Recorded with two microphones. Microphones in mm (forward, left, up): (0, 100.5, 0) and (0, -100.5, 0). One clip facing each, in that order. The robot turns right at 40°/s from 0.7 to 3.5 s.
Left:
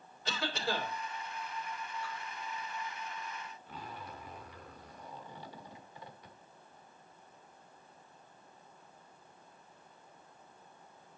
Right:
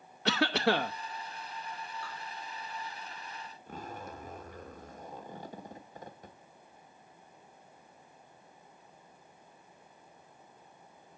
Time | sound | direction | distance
0.2 | a cough | 70° right (ahead or behind) | 0.8 m
2.0 | dripping | 70° right (ahead or behind) | 5 m
3.7 | a zipper | 45° right (ahead or behind) | 1.1 m